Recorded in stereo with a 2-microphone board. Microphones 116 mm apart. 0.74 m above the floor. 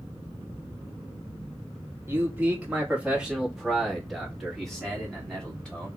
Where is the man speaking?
20° right (ahead or behind), 1.3 m; by 5.9 s 10° left (ahead or behind), 2.5 m.